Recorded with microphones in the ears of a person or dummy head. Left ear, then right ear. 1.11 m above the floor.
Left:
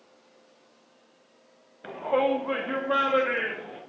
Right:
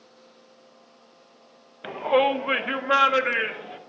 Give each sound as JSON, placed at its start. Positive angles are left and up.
{"t": 1.8, "sound": "a shout", "side_deg": -75, "distance_m": 0.7}